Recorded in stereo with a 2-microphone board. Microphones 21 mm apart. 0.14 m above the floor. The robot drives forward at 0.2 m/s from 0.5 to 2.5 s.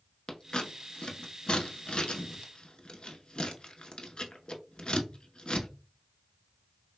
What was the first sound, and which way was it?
Scissors, 45° left (ahead or behind).